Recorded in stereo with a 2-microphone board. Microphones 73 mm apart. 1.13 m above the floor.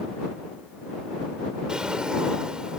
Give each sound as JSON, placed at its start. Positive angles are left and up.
{"t": 1.7, "sound": "a drawer", "side_deg": -15}